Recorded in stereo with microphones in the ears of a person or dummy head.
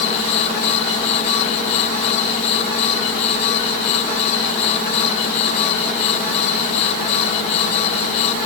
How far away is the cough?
No cough in this recording.